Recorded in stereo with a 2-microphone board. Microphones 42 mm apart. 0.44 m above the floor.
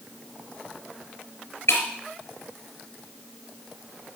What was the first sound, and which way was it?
Breaking glass, 85° left.